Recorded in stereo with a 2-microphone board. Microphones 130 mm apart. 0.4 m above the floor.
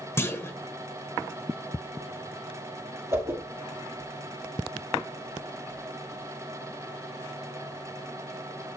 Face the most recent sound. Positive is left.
turn(degrees=-25)  # may be behind; listen again after turning